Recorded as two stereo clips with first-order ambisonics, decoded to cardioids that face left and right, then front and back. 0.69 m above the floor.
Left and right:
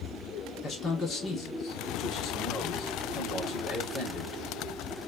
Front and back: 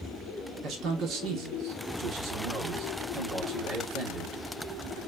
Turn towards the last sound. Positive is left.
turn(degrees=145)